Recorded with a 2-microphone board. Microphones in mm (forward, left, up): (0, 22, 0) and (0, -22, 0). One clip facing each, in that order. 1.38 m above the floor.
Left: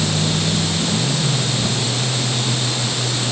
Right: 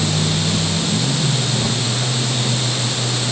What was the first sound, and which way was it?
Only background noise.